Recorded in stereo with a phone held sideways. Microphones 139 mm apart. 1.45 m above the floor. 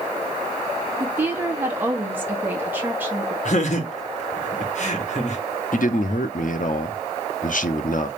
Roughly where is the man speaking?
Left.